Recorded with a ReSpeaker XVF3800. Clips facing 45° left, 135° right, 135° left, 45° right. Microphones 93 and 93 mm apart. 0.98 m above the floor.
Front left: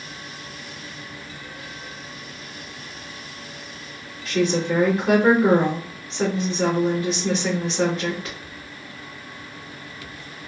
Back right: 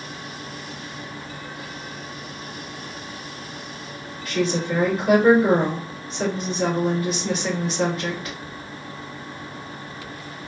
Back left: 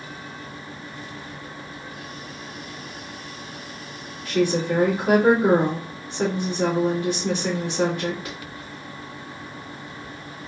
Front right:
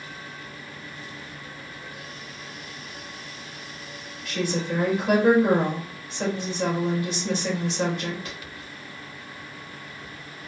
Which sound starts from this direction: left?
A woman speaking, at 4.2 s.